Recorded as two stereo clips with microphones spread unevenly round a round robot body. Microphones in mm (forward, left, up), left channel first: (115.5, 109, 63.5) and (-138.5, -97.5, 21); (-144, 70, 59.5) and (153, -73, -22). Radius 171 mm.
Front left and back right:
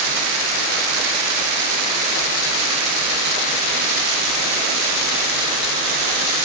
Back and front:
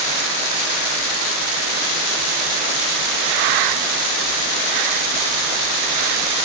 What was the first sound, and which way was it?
Only background noise.